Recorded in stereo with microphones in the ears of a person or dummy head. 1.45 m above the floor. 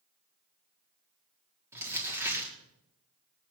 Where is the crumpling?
15° right (ahead or behind), 4.5 m.